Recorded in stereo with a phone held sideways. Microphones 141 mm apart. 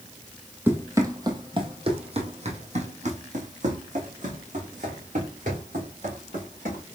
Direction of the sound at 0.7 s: 15° right (ahead or behind).